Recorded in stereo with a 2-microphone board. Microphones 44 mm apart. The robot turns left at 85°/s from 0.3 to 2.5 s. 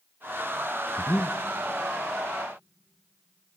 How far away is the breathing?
About 1.0 m.